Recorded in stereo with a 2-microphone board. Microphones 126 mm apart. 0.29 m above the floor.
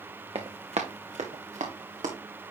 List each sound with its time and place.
0.3 s running footsteps: 50° right (ahead or behind), 1.3 m; by 2.1 s 85° right, 2 m